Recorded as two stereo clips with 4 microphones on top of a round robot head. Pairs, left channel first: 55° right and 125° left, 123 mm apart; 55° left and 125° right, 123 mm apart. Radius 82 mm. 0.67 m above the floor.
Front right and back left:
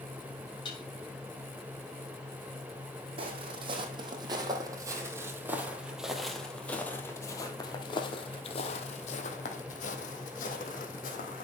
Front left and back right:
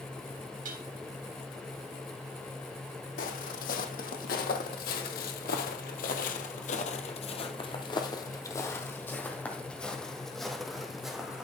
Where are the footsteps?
75° left, 2.5 m; by 11.4 s 40° right, 2.5 m.